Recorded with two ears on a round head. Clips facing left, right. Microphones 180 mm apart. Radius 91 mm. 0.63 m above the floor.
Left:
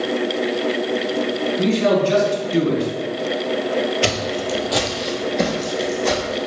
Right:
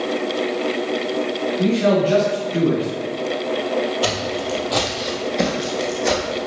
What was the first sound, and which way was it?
A man speaking, 45° left (ahead or behind).